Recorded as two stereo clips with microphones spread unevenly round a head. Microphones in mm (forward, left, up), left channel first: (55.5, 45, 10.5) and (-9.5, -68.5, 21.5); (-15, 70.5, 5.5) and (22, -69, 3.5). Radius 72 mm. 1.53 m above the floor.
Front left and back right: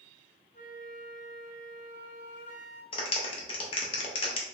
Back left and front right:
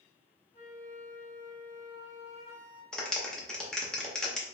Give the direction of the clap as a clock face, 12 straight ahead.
11 o'clock.